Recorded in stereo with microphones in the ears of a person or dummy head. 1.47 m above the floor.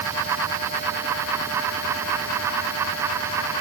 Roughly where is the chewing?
No chewing in this recording.